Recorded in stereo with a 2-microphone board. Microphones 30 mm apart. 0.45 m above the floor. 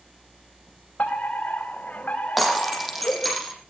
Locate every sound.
1.0 s a fire alarm: 60° left (ahead or behind), 4.5 m
2.4 s breaking glass: centre (ahead or behind), 6 m